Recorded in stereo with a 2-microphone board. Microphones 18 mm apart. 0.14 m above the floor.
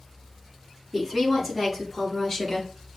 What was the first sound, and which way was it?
A woman speaking, 10° right (ahead or behind).